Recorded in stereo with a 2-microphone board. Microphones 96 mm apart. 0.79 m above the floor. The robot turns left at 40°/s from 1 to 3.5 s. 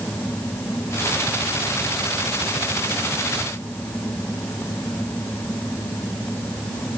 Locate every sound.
Only background noise.